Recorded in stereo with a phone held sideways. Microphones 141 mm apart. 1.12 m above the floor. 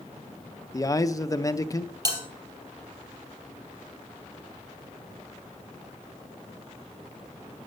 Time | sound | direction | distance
0.7 | a man speaking | 25° left (ahead or behind) | 0.6 m
2.0 | a bell | 30° right (ahead or behind) | 3 m